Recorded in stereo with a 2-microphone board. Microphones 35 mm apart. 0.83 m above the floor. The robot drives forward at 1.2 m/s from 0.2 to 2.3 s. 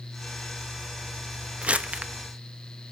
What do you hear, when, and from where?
1.6 s crumpling: 40° right (ahead or behind), 0.8 m